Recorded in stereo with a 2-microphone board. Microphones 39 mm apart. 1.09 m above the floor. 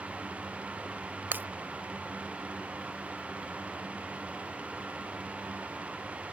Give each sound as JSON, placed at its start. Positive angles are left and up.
{"t": 1.3, "sound": "breaking glass", "side_deg": -55}